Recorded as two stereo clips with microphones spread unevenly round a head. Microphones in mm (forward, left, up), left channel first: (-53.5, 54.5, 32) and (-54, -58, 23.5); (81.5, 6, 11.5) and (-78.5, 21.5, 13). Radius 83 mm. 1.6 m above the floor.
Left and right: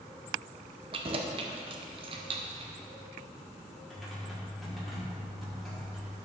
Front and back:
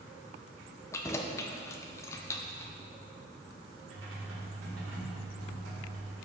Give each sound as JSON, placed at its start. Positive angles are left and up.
{"t": 0.9, "sound": "keys jangling", "azimuth_deg": -70, "distance_m": 0.5}
{"t": 3.9, "sound": "typing on a keyboard", "azimuth_deg": 180, "distance_m": 3.0}